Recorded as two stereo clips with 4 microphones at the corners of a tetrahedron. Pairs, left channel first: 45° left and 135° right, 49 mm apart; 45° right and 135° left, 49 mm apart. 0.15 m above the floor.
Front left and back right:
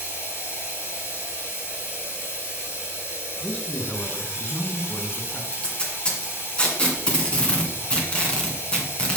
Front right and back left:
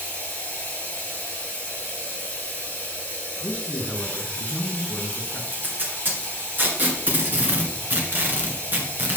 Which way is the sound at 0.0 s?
15° left.